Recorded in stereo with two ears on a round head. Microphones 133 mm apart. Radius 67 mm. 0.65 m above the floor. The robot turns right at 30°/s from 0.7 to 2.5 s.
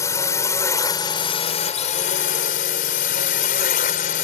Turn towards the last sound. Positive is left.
turn(degrees=80)